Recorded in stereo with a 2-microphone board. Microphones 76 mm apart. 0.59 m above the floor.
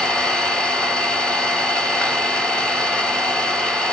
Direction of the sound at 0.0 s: 10° left (ahead or behind).